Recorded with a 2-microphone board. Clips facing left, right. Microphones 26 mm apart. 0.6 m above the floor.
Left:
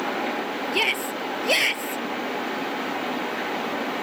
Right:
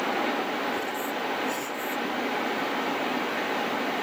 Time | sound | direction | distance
0.7 | a shout | 75° left (ahead or behind) | ?